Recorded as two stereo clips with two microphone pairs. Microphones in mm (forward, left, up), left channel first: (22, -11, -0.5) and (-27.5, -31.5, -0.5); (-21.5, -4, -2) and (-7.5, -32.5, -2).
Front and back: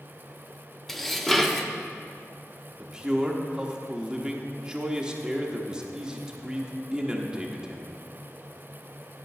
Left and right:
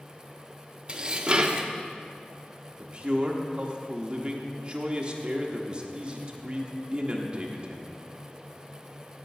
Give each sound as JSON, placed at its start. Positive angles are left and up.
{"t": 0.9, "sound": "dishes clattering", "azimuth_deg": -60, "distance_m": 0.6}
{"t": 2.8, "sound": "a man speaking", "azimuth_deg": -90, "distance_m": 0.9}